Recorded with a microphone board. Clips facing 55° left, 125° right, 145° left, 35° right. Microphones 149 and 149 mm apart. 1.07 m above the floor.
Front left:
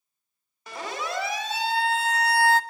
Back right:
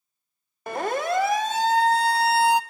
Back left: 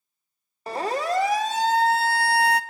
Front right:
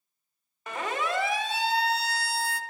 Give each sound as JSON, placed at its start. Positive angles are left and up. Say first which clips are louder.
{"t": 0.7, "sound": "a siren", "louder": "back right 8 dB, back left 5 dB", "azimuth_deg": -160, "distance_m": 3.0}